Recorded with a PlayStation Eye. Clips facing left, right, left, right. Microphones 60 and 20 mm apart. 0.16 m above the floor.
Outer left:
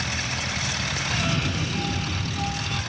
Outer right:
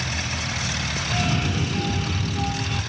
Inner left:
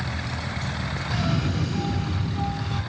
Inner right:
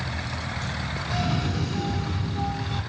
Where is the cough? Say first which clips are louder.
Outer right 3 dB, inner left 1 dB; 5° right (ahead or behind), 1.1 m.